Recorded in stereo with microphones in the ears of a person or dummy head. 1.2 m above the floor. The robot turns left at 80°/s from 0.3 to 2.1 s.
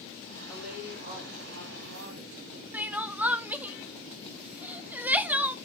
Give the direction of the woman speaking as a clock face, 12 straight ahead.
12 o'clock.